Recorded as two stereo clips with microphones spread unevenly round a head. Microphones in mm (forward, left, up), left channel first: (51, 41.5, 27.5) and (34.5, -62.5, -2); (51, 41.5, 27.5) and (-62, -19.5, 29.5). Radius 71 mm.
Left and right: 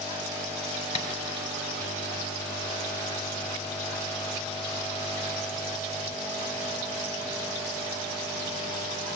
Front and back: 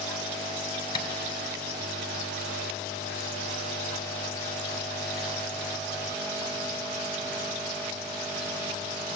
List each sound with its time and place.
0.9 s tapping: 85° left, 2.5 m